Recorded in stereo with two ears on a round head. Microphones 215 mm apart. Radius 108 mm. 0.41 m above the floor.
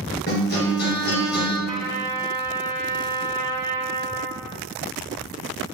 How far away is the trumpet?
About 1.7 m.